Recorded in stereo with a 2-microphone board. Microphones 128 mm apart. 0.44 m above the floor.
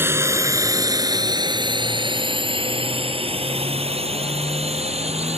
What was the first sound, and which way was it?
A drone, 20° right (ahead or behind).